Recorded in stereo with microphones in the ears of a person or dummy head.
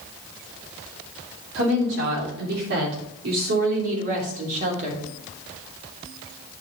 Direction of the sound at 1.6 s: 75° right (ahead or behind).